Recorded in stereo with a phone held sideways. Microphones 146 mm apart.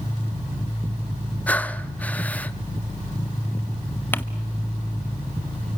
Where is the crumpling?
15° left (ahead or behind), 0.9 m.